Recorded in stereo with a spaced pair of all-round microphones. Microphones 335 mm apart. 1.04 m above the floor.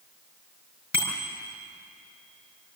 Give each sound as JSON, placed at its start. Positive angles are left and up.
{"t": 0.9, "sound": "a bicycle bell", "side_deg": 70, "distance_m": 5.0}